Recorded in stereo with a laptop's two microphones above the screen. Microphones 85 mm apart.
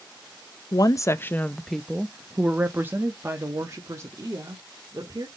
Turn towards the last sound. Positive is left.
turn(degrees=-40)  # may be behind; listen again after turning